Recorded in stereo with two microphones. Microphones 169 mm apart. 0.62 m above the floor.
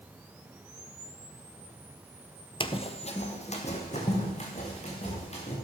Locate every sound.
2.6 s running footsteps: 30° left (ahead or behind), 0.7 m; by 5.5 s 40° left (ahead or behind), 4.5 m